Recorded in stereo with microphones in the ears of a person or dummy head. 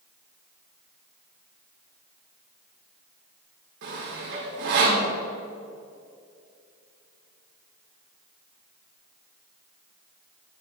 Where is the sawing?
55° right (ahead or behind), 1.7 m.